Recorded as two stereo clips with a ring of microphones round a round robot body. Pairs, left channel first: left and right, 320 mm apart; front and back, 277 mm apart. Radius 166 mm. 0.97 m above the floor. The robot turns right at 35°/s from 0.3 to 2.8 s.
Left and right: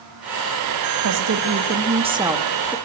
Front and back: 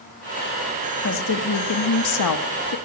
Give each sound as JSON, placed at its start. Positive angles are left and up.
{"t": 1.0, "sound": "a woman speaking", "azimuth_deg": -55, "distance_m": 1.6}